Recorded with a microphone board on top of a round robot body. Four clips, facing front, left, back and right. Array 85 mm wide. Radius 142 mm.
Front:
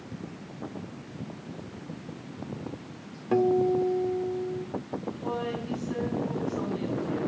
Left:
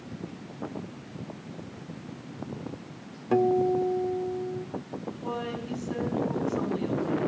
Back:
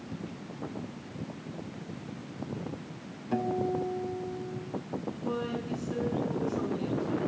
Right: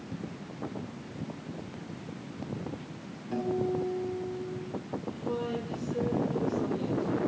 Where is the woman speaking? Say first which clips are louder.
Even, front 1 dB; 45° left, 6.5 m.